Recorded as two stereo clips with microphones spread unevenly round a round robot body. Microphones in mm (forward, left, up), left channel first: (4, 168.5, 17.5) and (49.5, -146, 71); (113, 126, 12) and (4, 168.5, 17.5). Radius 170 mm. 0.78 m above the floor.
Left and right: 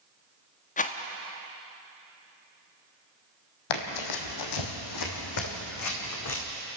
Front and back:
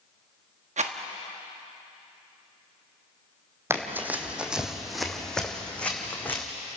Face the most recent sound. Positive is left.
turn(degrees=55)